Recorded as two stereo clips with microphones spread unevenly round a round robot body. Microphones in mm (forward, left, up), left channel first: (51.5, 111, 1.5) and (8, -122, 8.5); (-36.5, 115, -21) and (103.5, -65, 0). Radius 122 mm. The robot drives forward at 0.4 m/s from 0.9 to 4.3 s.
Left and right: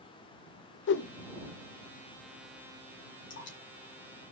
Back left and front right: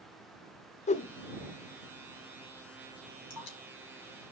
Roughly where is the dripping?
Behind left.